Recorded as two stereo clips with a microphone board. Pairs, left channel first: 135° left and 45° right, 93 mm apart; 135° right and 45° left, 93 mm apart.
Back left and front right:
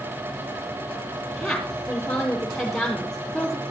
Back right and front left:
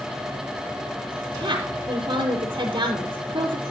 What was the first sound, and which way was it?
A woman speaking, 50° left.